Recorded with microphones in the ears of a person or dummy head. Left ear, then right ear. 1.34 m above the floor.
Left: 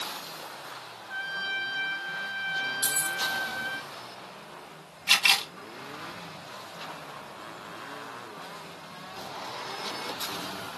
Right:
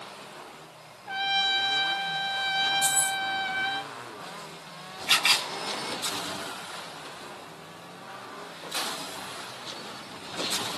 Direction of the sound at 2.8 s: 20° left (ahead or behind).